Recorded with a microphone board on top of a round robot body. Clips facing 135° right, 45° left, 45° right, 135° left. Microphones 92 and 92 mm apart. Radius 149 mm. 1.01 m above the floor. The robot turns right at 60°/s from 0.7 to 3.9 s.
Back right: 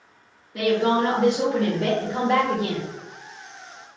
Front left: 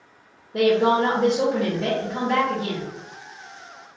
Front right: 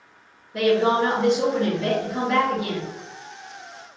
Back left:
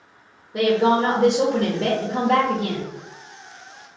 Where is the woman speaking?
65° left, 0.8 m; by 2.9 s 165° right, 0.8 m.